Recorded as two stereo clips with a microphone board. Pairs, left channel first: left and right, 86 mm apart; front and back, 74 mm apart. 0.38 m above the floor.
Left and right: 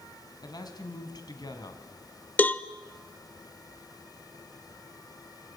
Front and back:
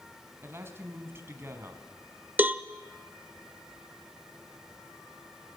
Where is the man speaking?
125° left, 3 m.